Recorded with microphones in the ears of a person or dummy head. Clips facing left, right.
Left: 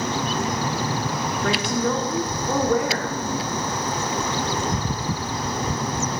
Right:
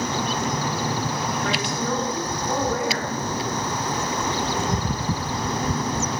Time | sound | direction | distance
1.4 | a woman speaking | 65° left (ahead or behind) | 1.4 m